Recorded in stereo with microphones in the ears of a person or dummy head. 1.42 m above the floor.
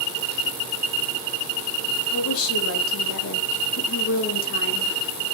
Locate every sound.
2.1 s a woman speaking: 85° left, 2.5 m; by 5.0 s 40° left (ahead or behind), 1.4 m